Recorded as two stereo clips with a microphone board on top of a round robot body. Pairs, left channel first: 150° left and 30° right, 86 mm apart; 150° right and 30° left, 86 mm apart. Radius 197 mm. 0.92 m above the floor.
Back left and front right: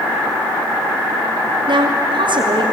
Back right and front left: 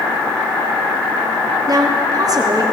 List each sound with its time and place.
1.7 s a woman speaking: 10° right, 3 m